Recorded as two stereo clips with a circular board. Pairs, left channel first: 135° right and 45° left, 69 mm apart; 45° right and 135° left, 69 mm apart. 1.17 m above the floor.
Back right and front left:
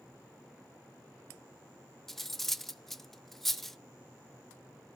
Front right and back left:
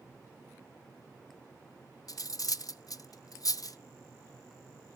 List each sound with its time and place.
2.1 s cutlery clinking: 45° right, 0.5 m